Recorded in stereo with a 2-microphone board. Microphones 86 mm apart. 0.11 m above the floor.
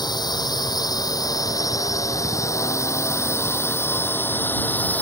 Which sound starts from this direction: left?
A drone, at 0.0 s.